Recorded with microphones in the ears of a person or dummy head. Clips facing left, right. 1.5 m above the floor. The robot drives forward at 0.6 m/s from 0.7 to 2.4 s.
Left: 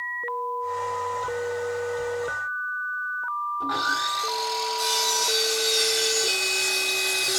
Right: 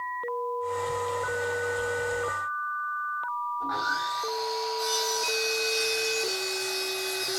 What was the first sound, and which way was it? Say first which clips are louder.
Sawing: left 4 dB; 45° left (ahead or behind).